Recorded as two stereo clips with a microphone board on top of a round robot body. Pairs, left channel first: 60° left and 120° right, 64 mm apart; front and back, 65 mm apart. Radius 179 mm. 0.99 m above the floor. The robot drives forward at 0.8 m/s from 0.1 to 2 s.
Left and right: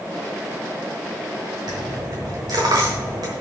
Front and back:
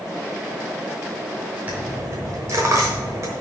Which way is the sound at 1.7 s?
110° right.